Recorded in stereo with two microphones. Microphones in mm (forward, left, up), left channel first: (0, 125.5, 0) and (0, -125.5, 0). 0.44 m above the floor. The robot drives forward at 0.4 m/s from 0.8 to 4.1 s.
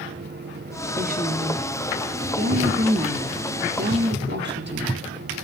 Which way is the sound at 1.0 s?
35° right (ahead or behind).